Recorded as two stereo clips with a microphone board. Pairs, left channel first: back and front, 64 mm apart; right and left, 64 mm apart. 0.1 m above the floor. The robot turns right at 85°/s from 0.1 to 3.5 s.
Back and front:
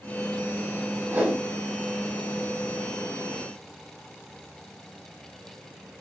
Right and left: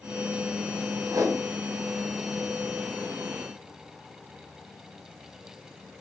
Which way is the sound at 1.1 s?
60° left.